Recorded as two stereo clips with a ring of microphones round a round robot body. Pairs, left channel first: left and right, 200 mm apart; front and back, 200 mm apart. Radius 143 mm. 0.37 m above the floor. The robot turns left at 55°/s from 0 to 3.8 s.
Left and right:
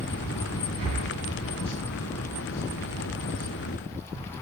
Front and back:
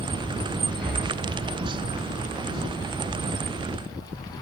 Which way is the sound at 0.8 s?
95° right.